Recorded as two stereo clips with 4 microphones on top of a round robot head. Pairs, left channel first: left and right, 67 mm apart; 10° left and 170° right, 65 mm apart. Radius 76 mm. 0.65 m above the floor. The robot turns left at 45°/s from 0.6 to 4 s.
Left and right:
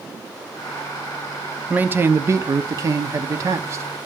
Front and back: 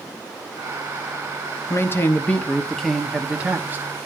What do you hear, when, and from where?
1.7 s a man speaking: 30° right, 0.9 m; by 3.8 s 125° right, 0.9 m